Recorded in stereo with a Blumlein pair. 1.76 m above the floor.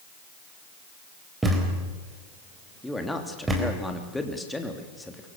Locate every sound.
1.4 s a thud: 10° right, 4 m
2.8 s a man speaking: 5° left, 3 m